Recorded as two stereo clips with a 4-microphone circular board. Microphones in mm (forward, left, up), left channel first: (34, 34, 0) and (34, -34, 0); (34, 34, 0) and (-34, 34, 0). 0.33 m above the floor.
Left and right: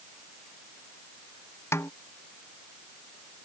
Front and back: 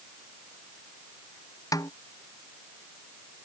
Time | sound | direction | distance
1.7 | a snare drum | 35° left | ?